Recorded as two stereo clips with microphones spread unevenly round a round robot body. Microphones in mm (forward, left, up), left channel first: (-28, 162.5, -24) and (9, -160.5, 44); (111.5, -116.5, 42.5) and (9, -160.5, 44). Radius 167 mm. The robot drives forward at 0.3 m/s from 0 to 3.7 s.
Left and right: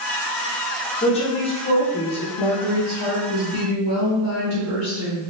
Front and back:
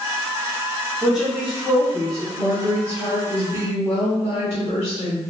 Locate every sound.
1.0 s a woman speaking: 115° left, 0.8 m; by 2.3 s 145° left, 1.0 m
2.4 s a woman speaking: 55° left, 1.2 m; by 5.3 s 75° left, 1.1 m